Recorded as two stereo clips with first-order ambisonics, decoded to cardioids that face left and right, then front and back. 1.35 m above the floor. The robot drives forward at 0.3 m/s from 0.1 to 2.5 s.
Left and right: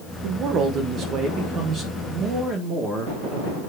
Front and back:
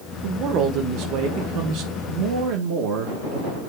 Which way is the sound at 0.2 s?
135° right.